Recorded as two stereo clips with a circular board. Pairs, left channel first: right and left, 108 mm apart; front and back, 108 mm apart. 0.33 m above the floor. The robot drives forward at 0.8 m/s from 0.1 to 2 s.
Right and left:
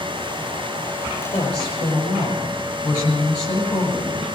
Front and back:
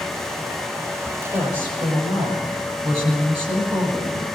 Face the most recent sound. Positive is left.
turn(degrees=-140)